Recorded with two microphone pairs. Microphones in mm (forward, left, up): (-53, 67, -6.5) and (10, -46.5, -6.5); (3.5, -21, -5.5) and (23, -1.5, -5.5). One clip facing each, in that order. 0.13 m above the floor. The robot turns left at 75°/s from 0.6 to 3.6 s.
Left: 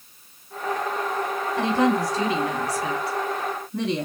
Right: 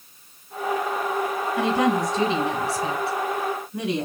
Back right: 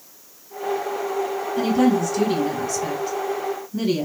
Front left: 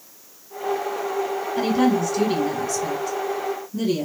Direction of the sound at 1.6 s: 20° left.